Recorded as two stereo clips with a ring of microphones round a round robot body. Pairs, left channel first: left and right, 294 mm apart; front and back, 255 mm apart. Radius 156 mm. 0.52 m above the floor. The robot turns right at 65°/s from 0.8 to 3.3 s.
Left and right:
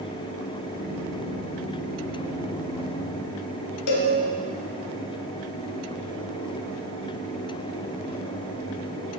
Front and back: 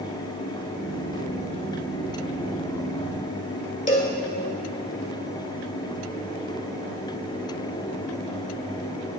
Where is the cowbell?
60° left, 1.8 m.